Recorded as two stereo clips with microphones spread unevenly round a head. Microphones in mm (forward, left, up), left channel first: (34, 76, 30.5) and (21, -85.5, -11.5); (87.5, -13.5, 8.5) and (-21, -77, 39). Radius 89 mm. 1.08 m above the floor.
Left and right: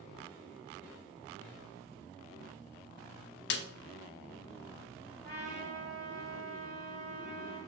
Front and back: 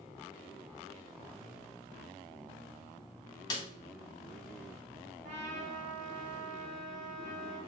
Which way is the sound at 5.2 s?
160° left.